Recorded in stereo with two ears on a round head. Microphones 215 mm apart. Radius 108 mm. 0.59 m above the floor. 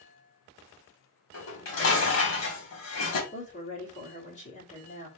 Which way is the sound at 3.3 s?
30° left (ahead or behind).